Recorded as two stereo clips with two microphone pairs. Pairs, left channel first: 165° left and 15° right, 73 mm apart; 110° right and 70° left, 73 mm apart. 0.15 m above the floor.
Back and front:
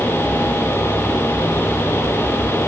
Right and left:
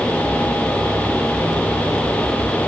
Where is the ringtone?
No ringtone in this recording.